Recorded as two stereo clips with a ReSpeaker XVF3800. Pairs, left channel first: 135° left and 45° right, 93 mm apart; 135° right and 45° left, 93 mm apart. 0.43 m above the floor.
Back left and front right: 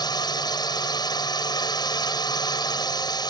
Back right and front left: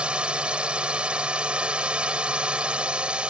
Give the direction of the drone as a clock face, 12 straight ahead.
8 o'clock.